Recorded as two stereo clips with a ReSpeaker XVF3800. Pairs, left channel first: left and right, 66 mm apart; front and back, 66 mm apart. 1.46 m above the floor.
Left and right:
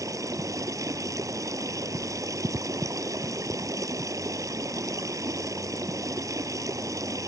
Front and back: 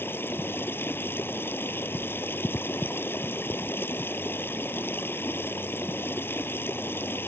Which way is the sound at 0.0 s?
55° right.